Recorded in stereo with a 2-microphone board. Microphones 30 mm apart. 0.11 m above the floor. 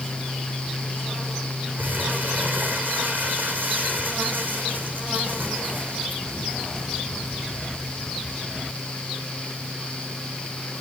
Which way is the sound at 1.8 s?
75° right (ahead or behind).